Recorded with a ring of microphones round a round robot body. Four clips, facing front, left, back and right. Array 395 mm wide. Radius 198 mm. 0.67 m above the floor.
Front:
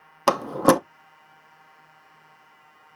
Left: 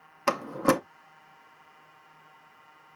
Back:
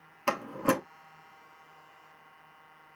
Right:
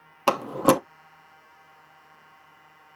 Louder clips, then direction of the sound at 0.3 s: Right 4 dB, front 10 dB; 25° right.